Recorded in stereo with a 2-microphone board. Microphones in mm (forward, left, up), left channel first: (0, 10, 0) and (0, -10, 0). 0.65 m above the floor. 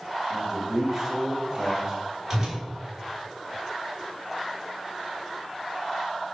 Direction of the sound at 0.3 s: 25° right (ahead or behind).